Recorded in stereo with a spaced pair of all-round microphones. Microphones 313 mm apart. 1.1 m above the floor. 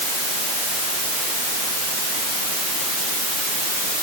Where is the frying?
No frying in this recording.